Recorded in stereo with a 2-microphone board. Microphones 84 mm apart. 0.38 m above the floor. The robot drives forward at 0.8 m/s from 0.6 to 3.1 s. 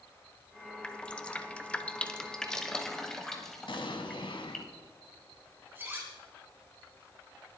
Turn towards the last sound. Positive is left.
turn(degrees=-25)  # may be behind; listen again after turning